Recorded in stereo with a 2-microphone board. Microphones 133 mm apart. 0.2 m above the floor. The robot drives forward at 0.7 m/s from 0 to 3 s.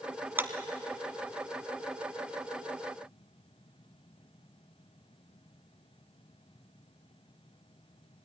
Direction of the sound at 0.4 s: 15° right (ahead or behind).